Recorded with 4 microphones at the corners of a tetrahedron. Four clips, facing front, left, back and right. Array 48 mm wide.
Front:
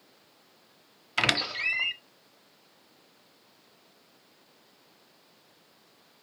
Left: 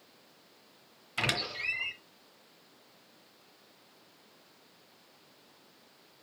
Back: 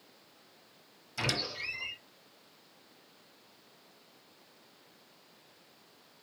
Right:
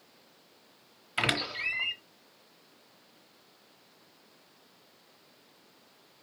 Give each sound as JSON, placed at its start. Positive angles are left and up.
{"t": 1.2, "sound": "a squeak", "azimuth_deg": -15, "distance_m": 1.0}